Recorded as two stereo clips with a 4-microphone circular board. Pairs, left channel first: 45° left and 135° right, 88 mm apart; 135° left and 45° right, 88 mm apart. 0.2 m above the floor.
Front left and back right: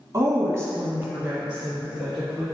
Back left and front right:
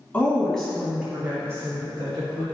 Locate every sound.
0.1 s a woman speaking: 165° right, 1.3 m; by 2.5 s 40° right, 1.6 m